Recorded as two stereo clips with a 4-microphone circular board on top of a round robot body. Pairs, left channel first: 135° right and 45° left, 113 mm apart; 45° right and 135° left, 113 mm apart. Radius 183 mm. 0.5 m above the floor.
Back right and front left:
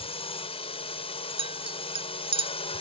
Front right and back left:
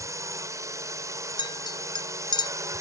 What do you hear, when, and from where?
0.0 s a drone: 165° right
1.4 s a clink: 5° left